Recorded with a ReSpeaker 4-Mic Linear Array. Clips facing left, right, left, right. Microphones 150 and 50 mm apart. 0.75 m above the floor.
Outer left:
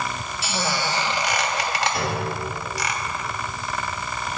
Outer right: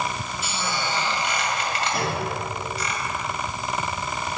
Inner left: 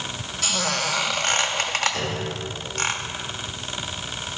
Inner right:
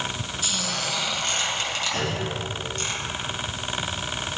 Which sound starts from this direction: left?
A squeak, at 0.4 s.